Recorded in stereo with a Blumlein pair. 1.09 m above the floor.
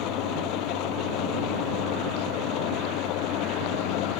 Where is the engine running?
40° left.